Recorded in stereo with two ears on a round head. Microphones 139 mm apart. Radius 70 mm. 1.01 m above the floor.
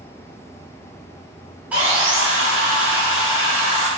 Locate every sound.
1.7 s sawing: 10° right (ahead or behind), 0.6 m